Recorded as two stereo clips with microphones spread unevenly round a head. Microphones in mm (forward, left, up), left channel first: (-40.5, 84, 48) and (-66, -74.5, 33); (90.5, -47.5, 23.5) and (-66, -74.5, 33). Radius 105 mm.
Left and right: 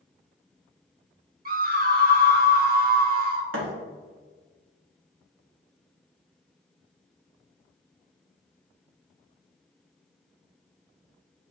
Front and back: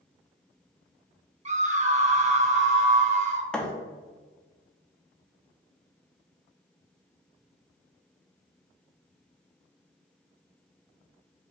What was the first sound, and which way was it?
A scream, 125° right.